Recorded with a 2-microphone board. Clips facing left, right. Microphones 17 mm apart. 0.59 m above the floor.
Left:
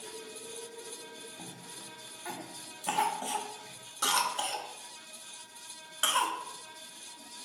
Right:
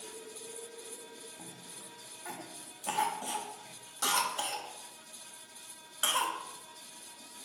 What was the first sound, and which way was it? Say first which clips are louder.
A cough: left 3 dB; 10° left (ahead or behind).